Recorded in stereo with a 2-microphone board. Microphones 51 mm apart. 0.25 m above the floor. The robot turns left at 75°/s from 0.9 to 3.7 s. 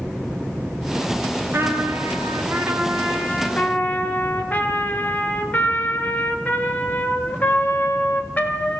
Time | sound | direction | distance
1.5 | a trumpet | 50° right | 2.5 m